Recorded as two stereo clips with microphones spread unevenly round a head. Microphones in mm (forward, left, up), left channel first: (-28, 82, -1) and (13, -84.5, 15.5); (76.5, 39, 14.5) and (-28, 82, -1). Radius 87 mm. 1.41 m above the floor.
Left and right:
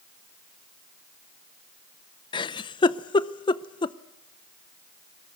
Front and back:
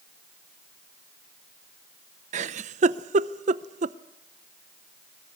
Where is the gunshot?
I don't hear a gunshot.